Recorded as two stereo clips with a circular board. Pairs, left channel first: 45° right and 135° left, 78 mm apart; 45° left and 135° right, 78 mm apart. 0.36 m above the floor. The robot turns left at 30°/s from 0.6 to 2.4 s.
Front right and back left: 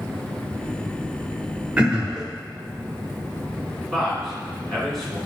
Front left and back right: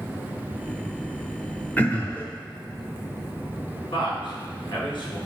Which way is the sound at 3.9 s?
45° left.